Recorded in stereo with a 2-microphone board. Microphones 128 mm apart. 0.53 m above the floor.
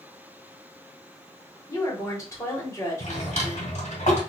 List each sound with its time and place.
1.7 s a woman speaking: 30° left (ahead or behind), 2 m
3.0 s a drawer: 80° left, 2.5 m